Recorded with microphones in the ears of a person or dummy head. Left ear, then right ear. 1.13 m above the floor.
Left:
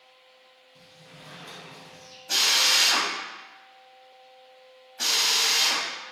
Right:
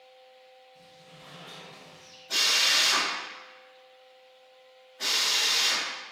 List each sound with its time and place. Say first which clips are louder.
0.8 s a sliding door: left 4 dB; 60° left (ahead or behind), 1.9 m
2.3 s a drill: left 2 dB; 80° left, 1.2 m